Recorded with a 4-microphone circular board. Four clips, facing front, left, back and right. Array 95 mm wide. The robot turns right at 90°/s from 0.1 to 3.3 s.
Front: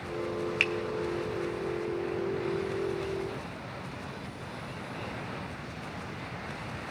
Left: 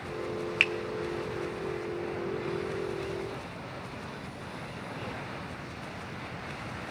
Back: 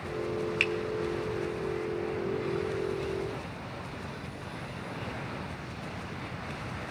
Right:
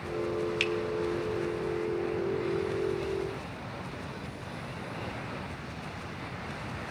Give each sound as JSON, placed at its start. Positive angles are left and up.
{"t": 0.6, "sound": "a finger snap", "azimuth_deg": 75, "distance_m": 0.6}